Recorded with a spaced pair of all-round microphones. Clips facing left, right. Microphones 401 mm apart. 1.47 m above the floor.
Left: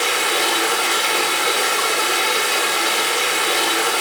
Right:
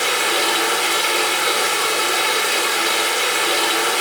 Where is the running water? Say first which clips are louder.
Even; centre (ahead or behind), 1.3 m.